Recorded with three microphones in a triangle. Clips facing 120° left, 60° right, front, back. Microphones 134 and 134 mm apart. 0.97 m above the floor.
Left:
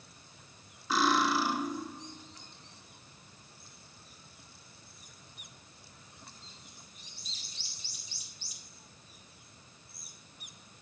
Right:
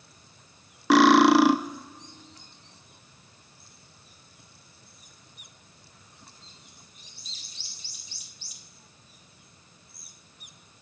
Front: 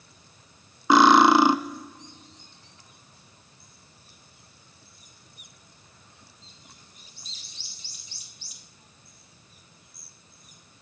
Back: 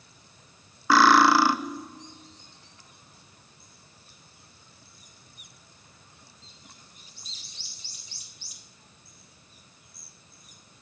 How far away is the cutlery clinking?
About 0.6 m.